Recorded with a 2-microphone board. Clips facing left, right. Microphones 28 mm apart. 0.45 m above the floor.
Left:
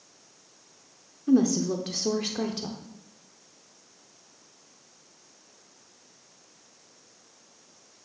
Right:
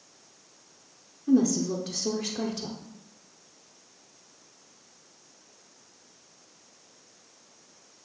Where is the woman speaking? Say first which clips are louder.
Left 1 dB; 25° left (ahead or behind), 0.8 m.